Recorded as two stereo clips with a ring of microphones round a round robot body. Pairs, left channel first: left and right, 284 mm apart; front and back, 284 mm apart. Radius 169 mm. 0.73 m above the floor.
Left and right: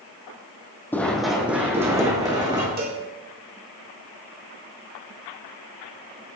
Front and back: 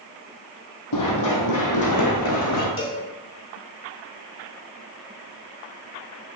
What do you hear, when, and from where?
0.9 s running footsteps: 5° left, 2 m; by 2.7 s 15° right, 4 m
2.8 s a cowbell: 35° right, 3.5 m